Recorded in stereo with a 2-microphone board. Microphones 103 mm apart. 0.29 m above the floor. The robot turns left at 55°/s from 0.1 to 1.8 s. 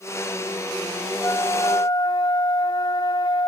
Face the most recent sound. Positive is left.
turn(degrees=105)